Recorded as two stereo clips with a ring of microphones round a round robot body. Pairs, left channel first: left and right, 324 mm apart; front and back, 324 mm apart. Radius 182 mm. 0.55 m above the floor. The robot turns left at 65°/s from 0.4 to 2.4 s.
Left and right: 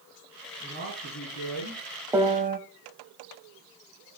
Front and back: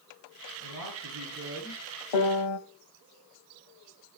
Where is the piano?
10° right, 1.1 m; by 2.6 s 25° right, 1.1 m.